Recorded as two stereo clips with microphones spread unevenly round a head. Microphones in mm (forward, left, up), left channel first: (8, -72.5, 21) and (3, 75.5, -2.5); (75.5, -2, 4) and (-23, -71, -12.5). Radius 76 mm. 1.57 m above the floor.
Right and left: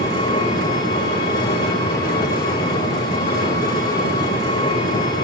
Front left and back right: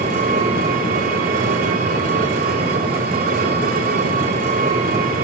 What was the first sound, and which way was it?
An engine running, 150° right.